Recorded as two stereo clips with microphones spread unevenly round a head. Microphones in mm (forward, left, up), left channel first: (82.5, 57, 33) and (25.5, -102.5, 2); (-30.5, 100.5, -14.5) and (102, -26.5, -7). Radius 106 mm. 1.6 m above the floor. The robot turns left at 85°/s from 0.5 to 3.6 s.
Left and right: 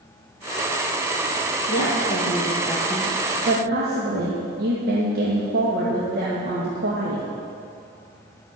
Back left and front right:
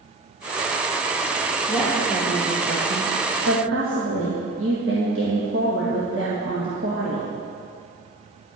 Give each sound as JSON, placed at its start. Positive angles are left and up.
{"t": 1.7, "sound": "a woman speaking", "azimuth_deg": 80, "distance_m": 2.0}